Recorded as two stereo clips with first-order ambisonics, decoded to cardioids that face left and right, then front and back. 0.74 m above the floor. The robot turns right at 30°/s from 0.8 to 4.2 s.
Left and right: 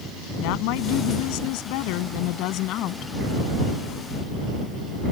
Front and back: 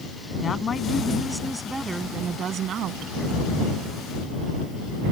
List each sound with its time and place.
0.4 s a woman speaking: 70° left; by 3.1 s 140° left